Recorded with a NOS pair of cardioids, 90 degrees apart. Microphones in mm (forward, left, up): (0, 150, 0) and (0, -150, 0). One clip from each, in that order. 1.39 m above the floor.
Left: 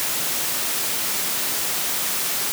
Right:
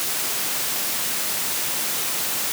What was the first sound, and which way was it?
Only background noise.